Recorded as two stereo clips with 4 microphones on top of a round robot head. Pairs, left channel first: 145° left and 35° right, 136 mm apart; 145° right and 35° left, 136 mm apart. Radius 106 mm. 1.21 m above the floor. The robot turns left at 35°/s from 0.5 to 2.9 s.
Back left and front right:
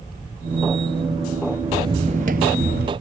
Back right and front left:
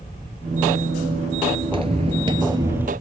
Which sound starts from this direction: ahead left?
Footsteps, at 1.6 s.